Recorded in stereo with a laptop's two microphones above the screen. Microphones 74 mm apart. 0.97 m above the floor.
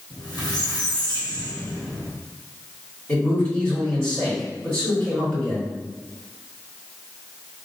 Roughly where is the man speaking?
Left.